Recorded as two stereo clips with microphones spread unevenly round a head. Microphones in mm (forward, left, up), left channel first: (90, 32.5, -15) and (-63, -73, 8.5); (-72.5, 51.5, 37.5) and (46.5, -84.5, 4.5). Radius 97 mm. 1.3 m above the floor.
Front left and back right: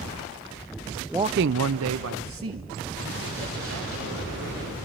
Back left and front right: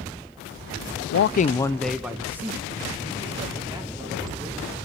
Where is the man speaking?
125° left, 0.5 m; by 4.6 s 120° right, 5 m.